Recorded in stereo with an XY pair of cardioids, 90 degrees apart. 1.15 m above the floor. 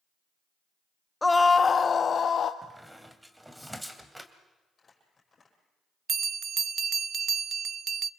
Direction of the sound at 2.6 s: 5° right.